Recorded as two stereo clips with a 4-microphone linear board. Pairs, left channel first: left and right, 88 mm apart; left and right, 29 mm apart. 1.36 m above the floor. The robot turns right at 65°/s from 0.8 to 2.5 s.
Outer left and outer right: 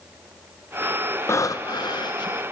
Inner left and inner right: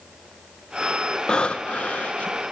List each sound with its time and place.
1.3 s breathing: 40° left, 0.5 m; by 2.4 s 110° left, 0.5 m